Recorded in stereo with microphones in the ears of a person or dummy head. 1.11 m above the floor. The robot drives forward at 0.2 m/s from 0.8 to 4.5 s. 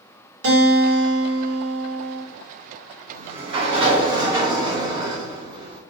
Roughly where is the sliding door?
Right.